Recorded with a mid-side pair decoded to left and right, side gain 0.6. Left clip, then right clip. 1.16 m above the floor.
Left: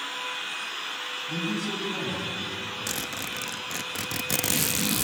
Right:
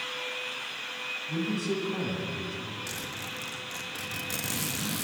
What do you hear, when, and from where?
1.3 s a man speaking: 10° left, 9 m; by 2.8 s straight ahead, 8.5 m
2.9 s a zipper: 45° left, 1.5 m